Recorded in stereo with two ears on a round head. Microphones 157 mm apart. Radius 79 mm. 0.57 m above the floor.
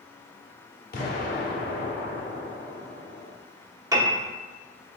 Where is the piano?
20° right (ahead or behind), 0.8 m.